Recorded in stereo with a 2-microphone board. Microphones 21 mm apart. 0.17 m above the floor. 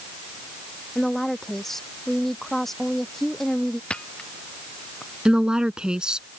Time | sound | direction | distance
0.9 | a woman speaking | 10° left (ahead or behind) | ?
3.9 | a camera shutter | 55° left (ahead or behind) | ?
5.2 | a woman speaking | 45° right (ahead or behind) | ?